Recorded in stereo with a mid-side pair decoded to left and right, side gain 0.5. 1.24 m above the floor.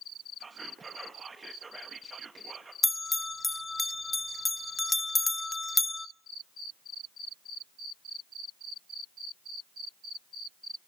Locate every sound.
0.4 s whispering: 25° right, 1.4 m
2.8 s a bell: 20° left, 0.6 m